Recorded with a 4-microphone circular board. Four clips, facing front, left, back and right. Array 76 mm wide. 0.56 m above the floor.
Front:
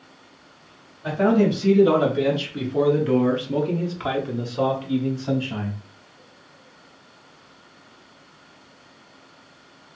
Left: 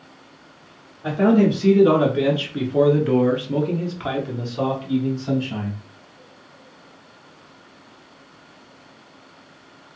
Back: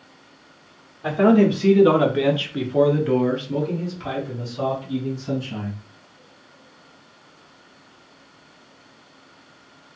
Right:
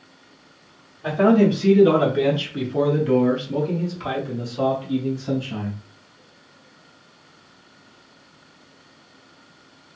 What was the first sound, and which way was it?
A man speaking, 170° right.